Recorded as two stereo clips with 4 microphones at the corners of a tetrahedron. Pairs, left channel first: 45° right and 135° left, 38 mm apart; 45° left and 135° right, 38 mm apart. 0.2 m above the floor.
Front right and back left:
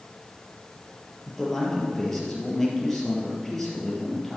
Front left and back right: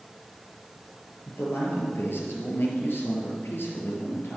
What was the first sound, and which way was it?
A man speaking, 40° left.